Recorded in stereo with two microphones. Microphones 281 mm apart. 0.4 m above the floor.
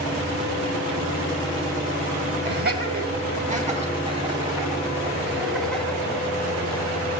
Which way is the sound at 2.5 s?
35° right (ahead or behind).